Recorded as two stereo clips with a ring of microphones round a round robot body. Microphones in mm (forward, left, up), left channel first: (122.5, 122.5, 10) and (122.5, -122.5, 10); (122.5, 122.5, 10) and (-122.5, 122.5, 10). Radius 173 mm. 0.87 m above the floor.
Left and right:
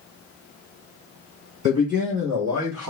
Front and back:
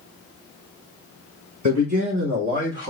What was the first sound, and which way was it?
A man speaking, 135° right.